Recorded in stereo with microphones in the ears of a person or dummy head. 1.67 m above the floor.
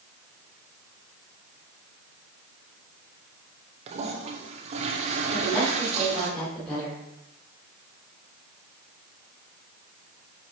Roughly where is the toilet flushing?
Right.